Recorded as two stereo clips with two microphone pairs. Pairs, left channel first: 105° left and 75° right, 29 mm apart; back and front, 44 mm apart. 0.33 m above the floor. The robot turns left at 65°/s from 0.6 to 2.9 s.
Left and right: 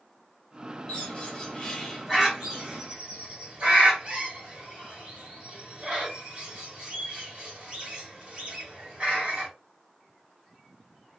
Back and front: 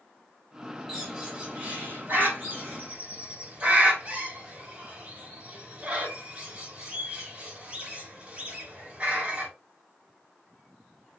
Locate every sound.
0.9 s a bird: 85° left, 1.8 m; by 9.5 s 45° right, 1.8 m